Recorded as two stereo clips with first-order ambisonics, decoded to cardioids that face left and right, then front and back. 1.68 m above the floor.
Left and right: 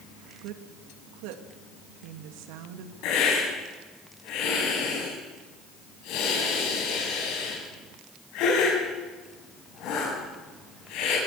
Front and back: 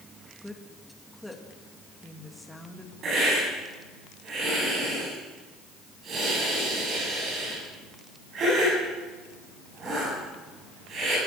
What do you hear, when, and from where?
0.4 s a woman speaking: 85° right, 2.5 m
3.0 s a hiss: 120° left, 7 m